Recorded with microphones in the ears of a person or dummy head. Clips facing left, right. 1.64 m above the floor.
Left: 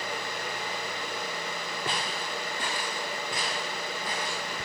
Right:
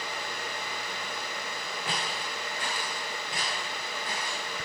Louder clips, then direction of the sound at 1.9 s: Left 1 dB; 30° left (ahead or behind).